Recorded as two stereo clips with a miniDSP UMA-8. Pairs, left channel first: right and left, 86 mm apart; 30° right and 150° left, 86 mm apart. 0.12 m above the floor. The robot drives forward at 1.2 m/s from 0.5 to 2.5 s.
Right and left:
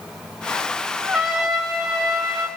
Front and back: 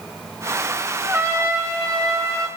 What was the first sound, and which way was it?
A trumpet, 165° left.